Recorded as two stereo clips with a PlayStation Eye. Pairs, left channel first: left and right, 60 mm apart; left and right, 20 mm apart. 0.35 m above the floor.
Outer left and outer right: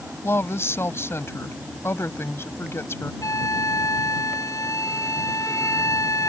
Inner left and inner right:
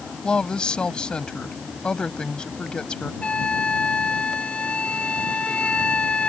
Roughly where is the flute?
Left.